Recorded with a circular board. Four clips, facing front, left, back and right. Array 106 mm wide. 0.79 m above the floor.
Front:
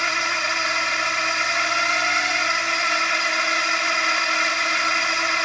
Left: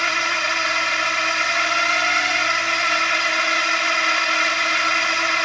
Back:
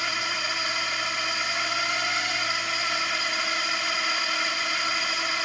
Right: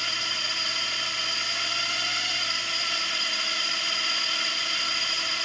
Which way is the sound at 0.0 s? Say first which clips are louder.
Left 12 dB, front 6 dB; 60° left.